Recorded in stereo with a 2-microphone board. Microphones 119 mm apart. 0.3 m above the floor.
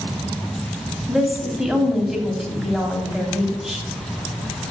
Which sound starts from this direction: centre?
A woman speaking, at 1.1 s.